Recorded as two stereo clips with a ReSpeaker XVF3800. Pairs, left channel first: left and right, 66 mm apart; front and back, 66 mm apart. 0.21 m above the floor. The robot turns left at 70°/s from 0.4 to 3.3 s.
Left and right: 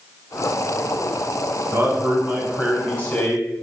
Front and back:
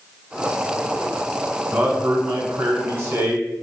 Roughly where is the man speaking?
Behind right.